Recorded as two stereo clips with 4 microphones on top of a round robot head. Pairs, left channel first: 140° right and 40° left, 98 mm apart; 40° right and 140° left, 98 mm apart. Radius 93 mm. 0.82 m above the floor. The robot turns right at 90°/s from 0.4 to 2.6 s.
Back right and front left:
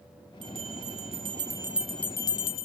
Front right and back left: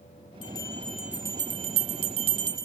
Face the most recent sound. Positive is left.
turn(degrees=-165)